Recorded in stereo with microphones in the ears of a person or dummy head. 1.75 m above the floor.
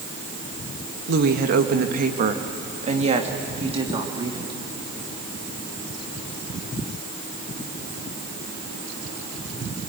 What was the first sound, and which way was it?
A woman speaking, 65° right (ahead or behind).